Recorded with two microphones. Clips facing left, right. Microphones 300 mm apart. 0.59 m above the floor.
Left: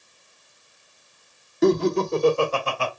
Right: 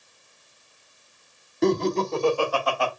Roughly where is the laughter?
Centre.